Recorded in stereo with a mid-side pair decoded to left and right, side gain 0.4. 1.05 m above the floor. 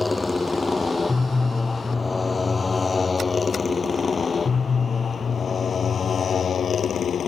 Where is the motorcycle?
20° left; by 7.3 s 55° left.